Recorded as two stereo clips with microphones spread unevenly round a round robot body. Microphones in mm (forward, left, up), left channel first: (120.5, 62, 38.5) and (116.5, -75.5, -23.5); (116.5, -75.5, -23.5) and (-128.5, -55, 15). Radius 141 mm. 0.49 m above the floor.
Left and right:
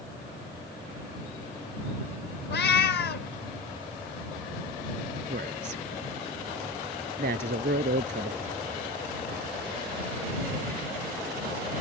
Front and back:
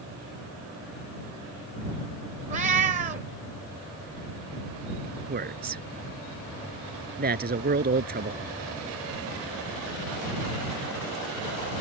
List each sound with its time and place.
2.5 s a cat meowing: 105° left
5.3 s a man speaking: 135° right